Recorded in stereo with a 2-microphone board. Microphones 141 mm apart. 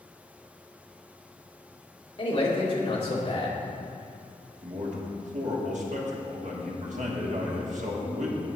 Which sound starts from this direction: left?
A man speaking, at 2.2 s.